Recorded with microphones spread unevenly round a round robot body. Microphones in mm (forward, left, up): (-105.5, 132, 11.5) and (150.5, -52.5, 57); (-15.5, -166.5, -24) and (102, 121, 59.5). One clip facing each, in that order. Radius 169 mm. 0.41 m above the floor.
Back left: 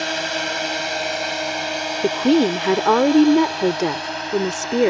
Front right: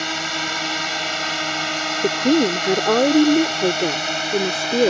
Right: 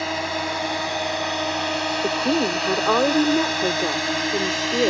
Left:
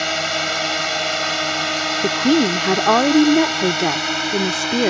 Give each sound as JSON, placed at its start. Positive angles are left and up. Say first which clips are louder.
{"t": 0.0, "sound": "a drone", "louder": "back left 2 dB, left 1 dB", "azimuth_deg": 35}
{"t": 2.0, "sound": "a woman speaking", "louder": "back left 1 dB, left 7 dB", "azimuth_deg": 80}